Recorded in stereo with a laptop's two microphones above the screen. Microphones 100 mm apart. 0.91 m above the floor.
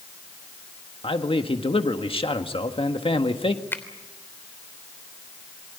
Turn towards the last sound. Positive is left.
turn(degrees=20)  # may be behind; listen again after turning